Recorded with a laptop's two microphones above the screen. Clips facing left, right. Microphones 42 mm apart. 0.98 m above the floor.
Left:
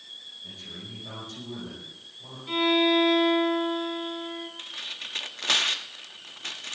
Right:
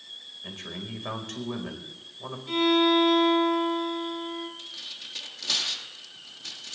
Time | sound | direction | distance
0.4 | a man speaking | 75° right (ahead or behind) | 4.5 m
2.5 | a violin | 15° left (ahead or behind) | 4 m
4.6 | tearing paper | 55° left (ahead or behind) | 1.0 m